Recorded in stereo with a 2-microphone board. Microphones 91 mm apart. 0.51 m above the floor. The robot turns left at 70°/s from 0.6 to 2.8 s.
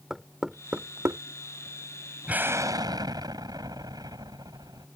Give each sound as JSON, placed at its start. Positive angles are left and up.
{"t": 0.1, "sound": "knocking", "side_deg": -5}
{"t": 2.3, "sound": "an explosion", "azimuth_deg": -15}